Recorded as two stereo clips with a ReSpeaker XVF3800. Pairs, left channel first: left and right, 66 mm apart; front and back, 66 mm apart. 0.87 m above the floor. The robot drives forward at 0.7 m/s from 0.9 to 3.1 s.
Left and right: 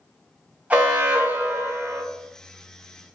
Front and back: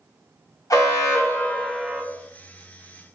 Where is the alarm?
20° right, 0.8 m; by 2.0 s 125° right, 0.5 m.